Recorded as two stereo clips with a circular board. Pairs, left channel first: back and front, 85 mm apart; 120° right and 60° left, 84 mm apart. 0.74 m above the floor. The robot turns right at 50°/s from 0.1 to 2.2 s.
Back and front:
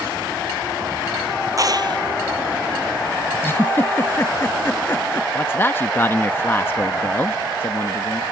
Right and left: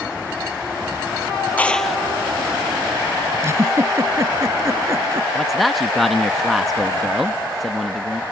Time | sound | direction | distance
1.6 | a clap | 50° right | ?
3.4 | a giggle | 115° left | ?
5.3 | a man speaking | 150° left | ?